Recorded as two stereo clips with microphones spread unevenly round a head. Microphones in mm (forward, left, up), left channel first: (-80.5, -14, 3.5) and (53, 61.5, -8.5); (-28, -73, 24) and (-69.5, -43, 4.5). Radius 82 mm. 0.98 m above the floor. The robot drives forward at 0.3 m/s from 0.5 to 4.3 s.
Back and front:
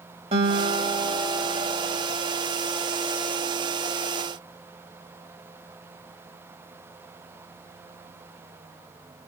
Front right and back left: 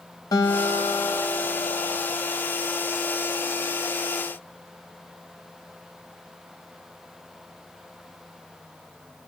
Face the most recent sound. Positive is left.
turn(degrees=-85)